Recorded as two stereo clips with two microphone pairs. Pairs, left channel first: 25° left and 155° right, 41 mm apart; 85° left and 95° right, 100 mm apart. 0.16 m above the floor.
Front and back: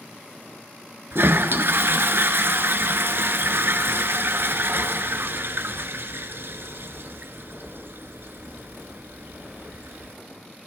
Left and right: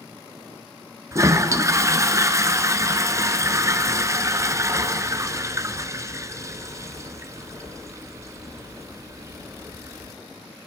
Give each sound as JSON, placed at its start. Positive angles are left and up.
{"t": 1.1, "sound": "a toilet flushing", "azimuth_deg": -150, "distance_m": 0.8}